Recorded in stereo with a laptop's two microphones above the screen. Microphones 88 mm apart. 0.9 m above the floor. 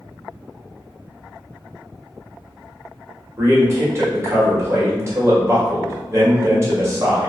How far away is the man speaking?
About 1.1 m.